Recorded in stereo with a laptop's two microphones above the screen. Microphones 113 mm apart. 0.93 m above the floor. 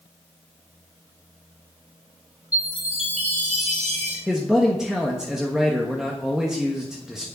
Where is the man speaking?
5° right (ahead or behind), 1.3 m.